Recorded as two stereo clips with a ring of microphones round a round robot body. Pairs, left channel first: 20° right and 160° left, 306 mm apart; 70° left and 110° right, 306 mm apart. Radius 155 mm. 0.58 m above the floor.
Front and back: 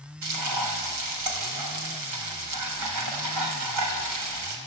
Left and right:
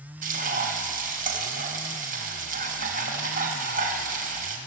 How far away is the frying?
About 4 m.